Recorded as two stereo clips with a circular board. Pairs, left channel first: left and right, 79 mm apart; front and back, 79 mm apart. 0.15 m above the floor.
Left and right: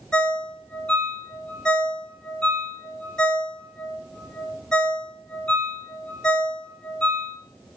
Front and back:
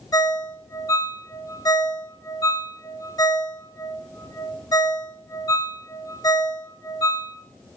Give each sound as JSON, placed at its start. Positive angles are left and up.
{"t": 0.1, "sound": "a ringtone", "azimuth_deg": 15, "distance_m": 0.7}